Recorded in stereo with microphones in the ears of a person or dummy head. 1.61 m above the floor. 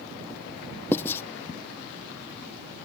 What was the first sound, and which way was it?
Writing, 10° left (ahead or behind).